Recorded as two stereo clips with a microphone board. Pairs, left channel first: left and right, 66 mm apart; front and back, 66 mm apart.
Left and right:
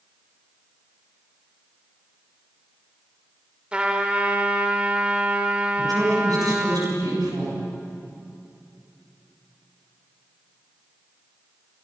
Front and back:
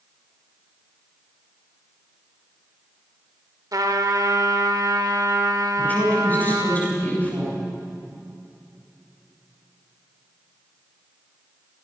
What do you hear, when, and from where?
3.7 s a trumpet: 165° right, 1.8 m
5.8 s a woman speaking: 65° right, 7 m